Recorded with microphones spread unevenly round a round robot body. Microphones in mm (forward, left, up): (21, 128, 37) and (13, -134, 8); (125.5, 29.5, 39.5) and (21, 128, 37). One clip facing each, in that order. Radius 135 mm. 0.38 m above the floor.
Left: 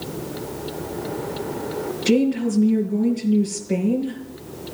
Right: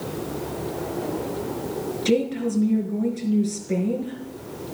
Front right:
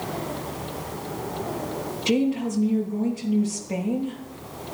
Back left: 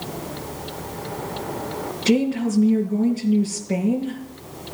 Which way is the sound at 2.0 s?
170° right.